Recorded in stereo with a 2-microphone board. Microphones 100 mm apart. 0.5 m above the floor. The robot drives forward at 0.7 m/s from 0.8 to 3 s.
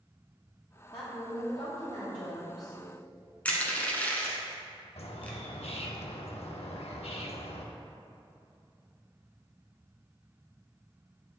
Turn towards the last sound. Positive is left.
turn(degrees=80)